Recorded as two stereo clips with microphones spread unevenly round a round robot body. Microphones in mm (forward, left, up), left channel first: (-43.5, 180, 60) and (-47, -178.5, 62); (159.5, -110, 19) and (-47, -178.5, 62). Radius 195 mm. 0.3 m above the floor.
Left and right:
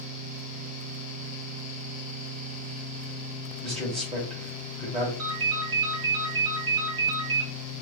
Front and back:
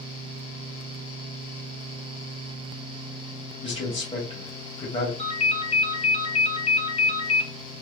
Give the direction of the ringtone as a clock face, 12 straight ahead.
1 o'clock.